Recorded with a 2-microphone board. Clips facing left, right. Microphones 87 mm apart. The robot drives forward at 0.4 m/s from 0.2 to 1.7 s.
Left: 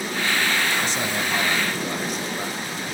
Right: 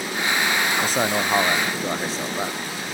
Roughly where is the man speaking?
Right.